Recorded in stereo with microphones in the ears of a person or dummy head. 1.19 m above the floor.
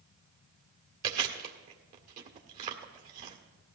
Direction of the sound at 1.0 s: 50° right (ahead or behind).